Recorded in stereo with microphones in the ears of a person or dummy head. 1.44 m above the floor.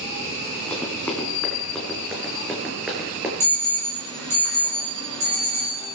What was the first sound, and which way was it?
Running footsteps, centre (ahead or behind).